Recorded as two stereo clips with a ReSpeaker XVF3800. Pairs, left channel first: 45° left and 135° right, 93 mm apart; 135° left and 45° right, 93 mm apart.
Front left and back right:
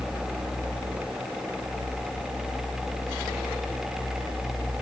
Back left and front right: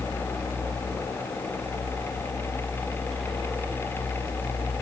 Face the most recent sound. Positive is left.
No sound to turn to.